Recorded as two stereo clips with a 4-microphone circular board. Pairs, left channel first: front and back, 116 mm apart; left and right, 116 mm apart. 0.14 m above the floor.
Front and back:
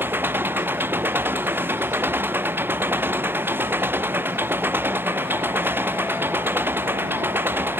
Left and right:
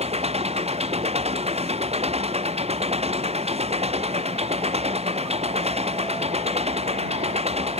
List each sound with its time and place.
0.0 s an engine running: 110° right